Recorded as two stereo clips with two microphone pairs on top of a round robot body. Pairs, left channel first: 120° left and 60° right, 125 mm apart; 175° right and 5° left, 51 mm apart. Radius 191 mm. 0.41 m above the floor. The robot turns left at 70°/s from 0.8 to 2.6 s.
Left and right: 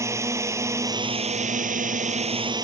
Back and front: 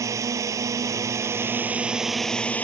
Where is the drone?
10° left; by 2.6 s 115° right.